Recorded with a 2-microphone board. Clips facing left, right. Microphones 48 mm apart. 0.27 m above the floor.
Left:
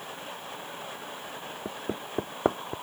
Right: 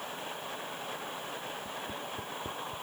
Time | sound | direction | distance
1.6 | hammering | 65° left (ahead or behind) | ?